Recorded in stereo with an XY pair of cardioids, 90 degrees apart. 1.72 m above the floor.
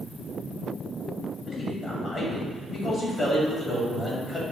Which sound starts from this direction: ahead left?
A man speaking, at 1.5 s.